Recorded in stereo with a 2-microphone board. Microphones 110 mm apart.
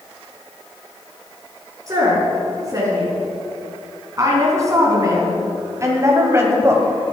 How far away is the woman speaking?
About 5 m.